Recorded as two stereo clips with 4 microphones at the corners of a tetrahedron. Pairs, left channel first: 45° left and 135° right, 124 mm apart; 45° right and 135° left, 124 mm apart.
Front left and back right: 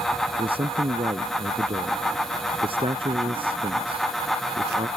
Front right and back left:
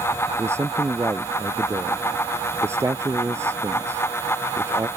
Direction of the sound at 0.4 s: 160° right.